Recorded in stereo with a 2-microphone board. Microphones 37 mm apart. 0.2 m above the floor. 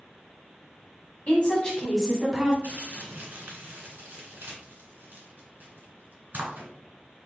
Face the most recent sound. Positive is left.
turn(degrees=-55)  # may be behind; listen again after turning